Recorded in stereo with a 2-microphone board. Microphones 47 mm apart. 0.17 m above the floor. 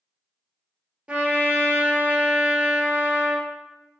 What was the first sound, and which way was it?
A trumpet, 30° right (ahead or behind).